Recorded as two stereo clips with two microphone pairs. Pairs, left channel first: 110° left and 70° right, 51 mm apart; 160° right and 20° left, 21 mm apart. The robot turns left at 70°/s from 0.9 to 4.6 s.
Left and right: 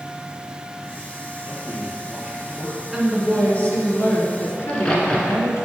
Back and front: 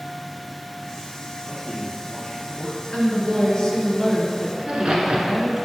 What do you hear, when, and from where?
1.4 s a man speaking: 105° right, 2.5 m; by 2.8 s 160° left, 2.5 m
2.9 s a woman speaking: 150° right, 2.0 m; by 5.6 s 95° left, 2.0 m
4.6 s a crack: 45° left, 1.4 m